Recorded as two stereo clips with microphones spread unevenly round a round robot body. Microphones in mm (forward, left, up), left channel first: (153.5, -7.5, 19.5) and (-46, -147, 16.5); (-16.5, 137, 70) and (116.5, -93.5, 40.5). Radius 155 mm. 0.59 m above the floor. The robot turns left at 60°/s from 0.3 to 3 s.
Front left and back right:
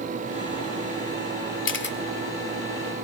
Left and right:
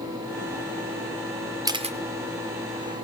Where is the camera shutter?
15° left, 2 m; by 2.0 s 5° right, 2 m.